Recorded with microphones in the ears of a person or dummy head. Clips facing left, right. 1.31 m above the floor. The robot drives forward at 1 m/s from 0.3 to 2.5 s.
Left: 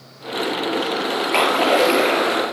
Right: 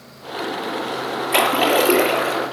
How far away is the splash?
About 4 m.